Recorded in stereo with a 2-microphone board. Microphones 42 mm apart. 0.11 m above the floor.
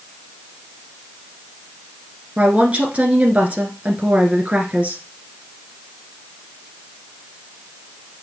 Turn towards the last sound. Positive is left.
turn(degrees=-35)  # may be behind; listen again after turning